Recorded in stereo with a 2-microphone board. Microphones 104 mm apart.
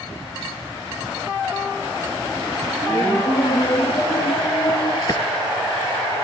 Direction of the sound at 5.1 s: 40° left (ahead or behind).